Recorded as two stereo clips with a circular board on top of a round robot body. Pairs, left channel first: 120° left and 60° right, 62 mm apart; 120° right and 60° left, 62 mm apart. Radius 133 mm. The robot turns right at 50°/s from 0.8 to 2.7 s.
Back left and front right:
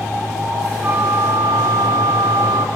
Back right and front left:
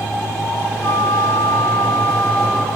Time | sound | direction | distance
0.8 | a flute | 120° right | 1.2 m